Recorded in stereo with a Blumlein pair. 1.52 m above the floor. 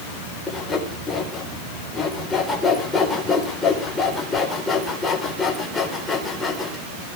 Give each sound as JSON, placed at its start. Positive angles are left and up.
{"t": 0.5, "sound": "sawing", "azimuth_deg": 15, "distance_m": 4.0}